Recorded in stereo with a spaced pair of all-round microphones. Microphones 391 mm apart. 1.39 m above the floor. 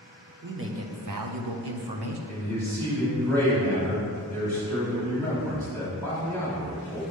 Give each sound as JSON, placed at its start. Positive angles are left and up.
{"t": 0.4, "sound": "a man speaking", "side_deg": -25, "distance_m": 0.9}
{"t": 2.3, "sound": "a man speaking", "side_deg": 5, "distance_m": 3.0}